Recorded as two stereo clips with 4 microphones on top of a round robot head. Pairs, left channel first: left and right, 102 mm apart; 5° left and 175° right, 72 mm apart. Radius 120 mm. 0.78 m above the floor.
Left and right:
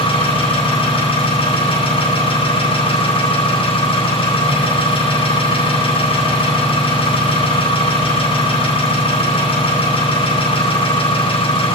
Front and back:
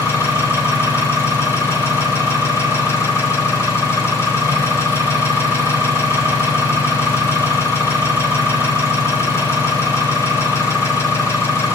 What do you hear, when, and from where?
0.0 s an engine running: 55° left, 6 m